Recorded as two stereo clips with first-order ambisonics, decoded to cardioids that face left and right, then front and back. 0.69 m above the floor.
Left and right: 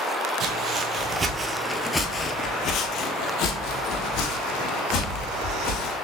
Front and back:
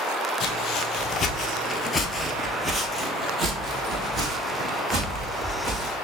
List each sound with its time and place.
0.4 s footsteps: 50° right, 1.1 m; by 5.9 s 115° left, 2.5 m